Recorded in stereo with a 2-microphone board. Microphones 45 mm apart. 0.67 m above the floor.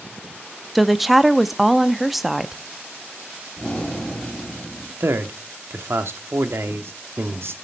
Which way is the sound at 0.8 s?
Centre (ahead or behind).